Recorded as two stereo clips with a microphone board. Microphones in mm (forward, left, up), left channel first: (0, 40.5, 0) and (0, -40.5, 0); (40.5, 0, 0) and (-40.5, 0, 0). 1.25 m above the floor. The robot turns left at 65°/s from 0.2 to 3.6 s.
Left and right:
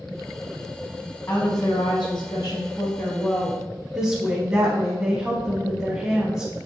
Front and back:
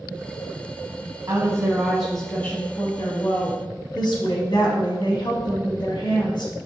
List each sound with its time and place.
1.3 s a woman speaking: 130° left, 0.7 m; by 6.5 s 20° right, 0.7 m